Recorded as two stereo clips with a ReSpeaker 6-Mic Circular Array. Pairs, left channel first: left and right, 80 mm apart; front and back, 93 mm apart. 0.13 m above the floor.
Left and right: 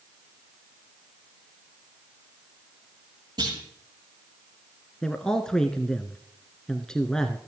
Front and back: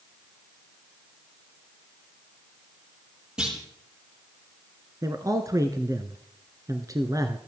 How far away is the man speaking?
About 1.3 m.